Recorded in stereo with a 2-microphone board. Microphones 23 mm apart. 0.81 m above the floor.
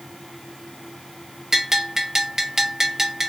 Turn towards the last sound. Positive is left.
turn(degrees=-15)  # may be behind; listen again after turning